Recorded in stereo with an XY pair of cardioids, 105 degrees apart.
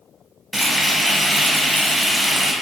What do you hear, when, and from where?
0.5 s frying: 10° right, 0.9 m